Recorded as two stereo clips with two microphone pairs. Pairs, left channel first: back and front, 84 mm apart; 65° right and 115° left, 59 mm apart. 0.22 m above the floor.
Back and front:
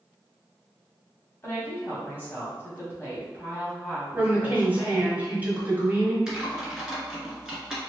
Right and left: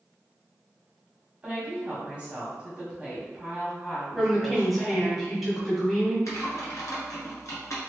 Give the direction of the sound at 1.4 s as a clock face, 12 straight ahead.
7 o'clock.